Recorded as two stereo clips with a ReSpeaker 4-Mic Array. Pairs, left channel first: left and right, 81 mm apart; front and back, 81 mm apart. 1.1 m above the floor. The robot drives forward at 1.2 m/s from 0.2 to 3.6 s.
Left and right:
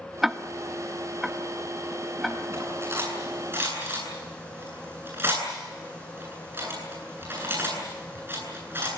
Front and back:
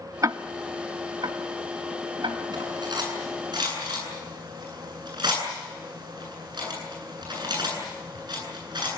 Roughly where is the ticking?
Behind.